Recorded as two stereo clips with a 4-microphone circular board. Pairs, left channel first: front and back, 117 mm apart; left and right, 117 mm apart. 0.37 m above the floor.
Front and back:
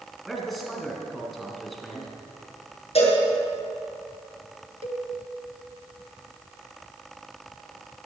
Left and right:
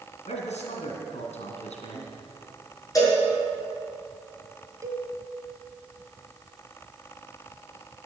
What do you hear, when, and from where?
0.2 s a man speaking: 90° left, 3.5 m
3.0 s a cowbell: 30° left, 6 m
4.8 s a cowbell: 150° right, 1.3 m